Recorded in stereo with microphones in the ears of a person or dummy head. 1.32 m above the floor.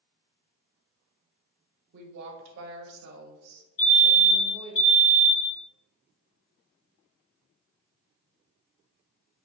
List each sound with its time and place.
1.9 s a woman speaking: 60° right (ahead or behind), 0.7 m
3.8 s a fire alarm: 25° left (ahead or behind), 1.8 m